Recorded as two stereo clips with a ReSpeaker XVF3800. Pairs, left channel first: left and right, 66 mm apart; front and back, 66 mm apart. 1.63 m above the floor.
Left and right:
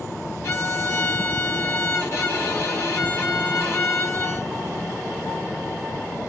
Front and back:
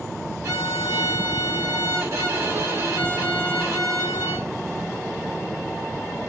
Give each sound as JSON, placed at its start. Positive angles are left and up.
{"t": 0.4, "sound": "a violin", "azimuth_deg": 140, "distance_m": 1.3}